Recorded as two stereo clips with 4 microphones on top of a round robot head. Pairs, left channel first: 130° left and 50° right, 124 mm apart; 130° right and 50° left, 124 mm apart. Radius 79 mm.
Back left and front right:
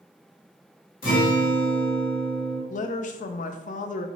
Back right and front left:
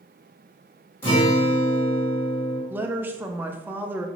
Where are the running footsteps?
I don't hear running footsteps.